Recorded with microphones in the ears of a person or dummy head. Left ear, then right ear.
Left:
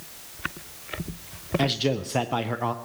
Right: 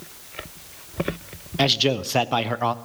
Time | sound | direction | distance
1.6 | a man speaking | 20° right (ahead or behind) | 0.5 m